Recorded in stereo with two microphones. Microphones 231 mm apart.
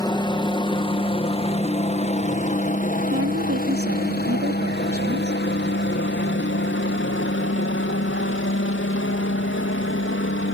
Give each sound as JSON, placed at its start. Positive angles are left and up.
{"t": 0.0, "sound": "a helicopter", "side_deg": 20}
{"t": 3.1, "sound": "a woman speaking", "side_deg": -75}